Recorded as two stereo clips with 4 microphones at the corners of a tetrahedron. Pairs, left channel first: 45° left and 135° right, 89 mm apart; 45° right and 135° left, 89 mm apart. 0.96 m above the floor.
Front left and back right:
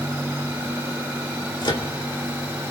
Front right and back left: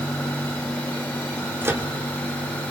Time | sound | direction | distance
1.6 | a microwave | 75° left | 2.5 m